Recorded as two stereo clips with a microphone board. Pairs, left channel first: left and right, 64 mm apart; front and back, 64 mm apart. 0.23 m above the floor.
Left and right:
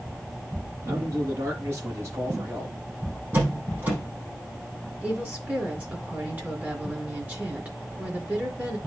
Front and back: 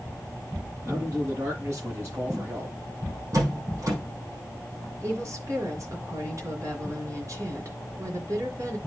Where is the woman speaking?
150° right, 4 m.